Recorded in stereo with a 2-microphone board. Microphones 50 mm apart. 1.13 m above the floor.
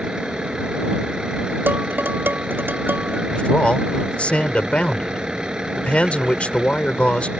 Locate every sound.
0.0 s a vehicle: 15° right (ahead or behind)
1.7 s dishes clattering: 45° right (ahead or behind)
3.3 s a man speaking: 25° left (ahead or behind)